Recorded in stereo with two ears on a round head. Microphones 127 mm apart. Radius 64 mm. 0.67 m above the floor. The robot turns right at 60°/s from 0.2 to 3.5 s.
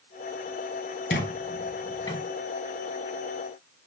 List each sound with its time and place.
1.1 s a squeak: 80° left, 2.5 m; by 2.2 s 20° left (ahead or behind), 2.5 m